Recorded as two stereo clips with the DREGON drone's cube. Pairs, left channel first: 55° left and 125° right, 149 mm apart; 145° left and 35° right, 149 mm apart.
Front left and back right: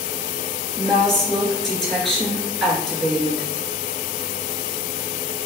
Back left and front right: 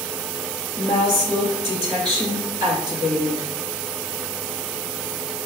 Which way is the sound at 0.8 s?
35° right.